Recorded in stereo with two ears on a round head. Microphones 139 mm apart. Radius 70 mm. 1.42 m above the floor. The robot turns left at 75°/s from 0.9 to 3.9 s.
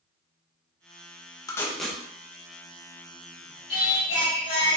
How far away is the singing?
About 1.8 m.